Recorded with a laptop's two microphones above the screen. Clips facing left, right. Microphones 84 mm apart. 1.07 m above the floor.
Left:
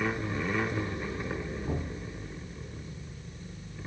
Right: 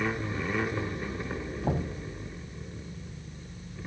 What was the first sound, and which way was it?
Knocking, 80° right.